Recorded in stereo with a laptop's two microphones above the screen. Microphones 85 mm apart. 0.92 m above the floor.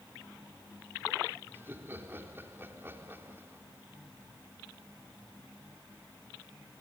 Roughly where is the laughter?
Right.